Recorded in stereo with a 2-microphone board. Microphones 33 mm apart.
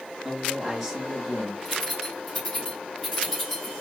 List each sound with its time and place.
0.2 s a man speaking: centre (ahead or behind), 3 m; by 1.6 s 5° right (ahead or behind), 3.5 m
1.6 s keys jangling: 10° left (ahead or behind), 3 m